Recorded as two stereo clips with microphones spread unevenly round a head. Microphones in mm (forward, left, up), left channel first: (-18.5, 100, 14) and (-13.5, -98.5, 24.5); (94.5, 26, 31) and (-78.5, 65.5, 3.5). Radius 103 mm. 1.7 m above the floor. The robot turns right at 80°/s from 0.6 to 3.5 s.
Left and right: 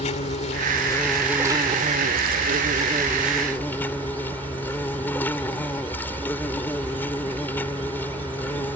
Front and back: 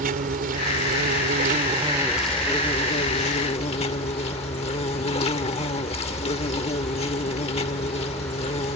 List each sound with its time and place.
0.0 s an insect: 140° left; by 8.8 s 10° left